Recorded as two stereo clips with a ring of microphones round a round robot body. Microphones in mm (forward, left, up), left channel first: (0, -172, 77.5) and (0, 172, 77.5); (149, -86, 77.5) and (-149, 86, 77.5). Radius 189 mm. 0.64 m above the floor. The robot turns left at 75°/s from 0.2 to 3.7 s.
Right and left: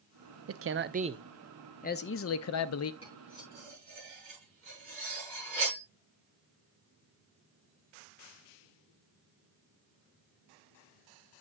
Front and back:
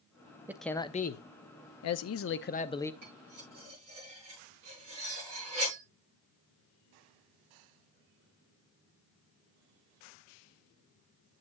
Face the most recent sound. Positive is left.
turn(degrees=145)